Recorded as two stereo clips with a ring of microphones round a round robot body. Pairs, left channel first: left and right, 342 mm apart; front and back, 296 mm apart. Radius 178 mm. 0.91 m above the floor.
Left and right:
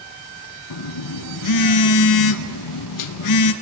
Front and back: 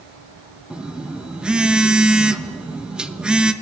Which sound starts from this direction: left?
A phone buzzing, at 0.7 s.